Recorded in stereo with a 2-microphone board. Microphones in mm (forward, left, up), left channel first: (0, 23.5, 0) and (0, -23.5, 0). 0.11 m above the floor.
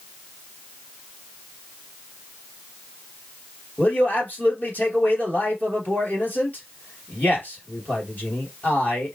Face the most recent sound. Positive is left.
turn(degrees=40)  # may be behind; listen again after turning